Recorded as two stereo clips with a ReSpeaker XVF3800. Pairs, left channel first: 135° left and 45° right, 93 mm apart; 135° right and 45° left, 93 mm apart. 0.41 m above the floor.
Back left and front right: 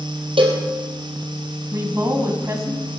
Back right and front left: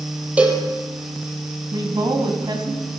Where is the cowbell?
30° right, 2.5 m.